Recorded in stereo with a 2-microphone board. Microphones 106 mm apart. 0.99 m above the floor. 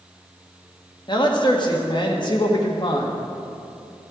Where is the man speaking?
45° left (ahead or behind), 1.6 m.